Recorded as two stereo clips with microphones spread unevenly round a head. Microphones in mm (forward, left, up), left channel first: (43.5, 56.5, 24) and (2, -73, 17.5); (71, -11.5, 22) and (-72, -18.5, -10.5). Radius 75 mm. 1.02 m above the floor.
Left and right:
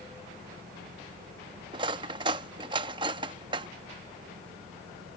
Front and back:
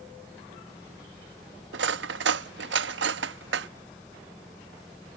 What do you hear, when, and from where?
0.0 s a fan: 80° right
1.7 s cutlery clinking: 170° right